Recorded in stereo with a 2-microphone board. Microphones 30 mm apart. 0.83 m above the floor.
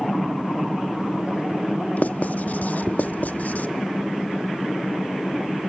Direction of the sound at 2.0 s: 60° left (ahead or behind).